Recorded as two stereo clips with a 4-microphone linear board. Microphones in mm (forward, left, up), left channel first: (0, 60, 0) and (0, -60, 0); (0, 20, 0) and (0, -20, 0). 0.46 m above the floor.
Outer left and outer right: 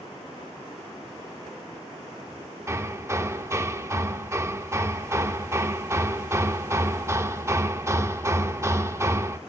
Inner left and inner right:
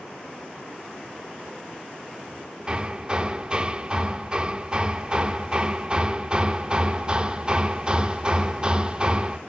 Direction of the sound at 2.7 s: 25° right (ahead or behind).